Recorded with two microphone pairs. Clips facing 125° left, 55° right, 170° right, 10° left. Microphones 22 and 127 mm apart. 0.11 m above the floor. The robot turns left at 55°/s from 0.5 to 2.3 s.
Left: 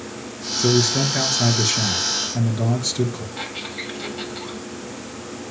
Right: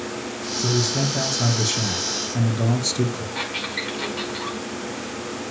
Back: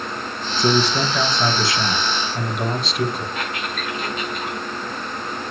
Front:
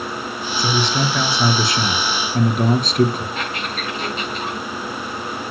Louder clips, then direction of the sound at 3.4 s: Right 3 dB, front 1 dB; 50° right.